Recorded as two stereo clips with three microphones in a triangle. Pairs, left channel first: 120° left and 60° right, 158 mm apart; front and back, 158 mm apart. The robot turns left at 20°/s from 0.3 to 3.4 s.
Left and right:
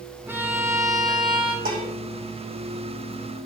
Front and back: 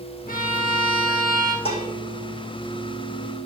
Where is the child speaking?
I don't hear a child speaking.